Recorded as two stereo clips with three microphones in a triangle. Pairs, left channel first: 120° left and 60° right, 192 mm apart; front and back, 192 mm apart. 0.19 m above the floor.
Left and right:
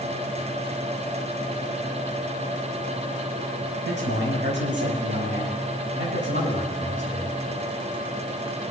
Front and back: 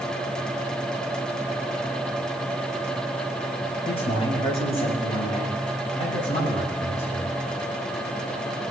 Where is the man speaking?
60° right, 5.5 m; by 7.3 s 55° right, 10.5 m.